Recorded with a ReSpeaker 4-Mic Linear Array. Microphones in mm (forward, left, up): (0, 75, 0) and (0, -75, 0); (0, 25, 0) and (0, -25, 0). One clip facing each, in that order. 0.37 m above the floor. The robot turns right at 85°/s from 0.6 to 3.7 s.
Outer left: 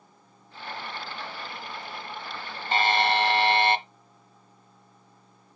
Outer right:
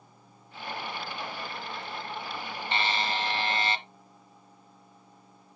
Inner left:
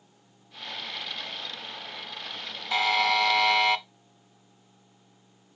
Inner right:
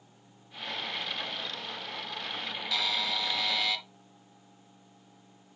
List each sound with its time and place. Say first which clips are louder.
2.7 s a buzzer: outer left 7 dB, inner left 9 dB; 40° left, 0.6 m; by 3.8 s 125° left, 0.6 m